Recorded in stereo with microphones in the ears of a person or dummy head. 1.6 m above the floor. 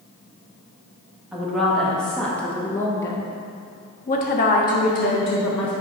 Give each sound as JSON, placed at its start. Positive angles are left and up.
{"t": 1.3, "sound": "a woman speaking", "side_deg": 0, "distance_m": 1.7}